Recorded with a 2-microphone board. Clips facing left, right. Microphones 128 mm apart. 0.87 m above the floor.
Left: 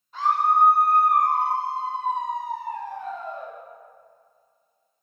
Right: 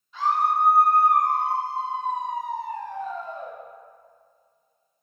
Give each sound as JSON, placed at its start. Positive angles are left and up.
{"t": 0.1, "sound": "a scream", "side_deg": 50, "distance_m": 2.5}